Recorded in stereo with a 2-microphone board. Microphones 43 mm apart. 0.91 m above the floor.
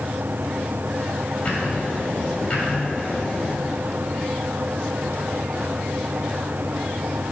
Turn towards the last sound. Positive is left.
turn(degrees=30)  # may be behind; listen again after turning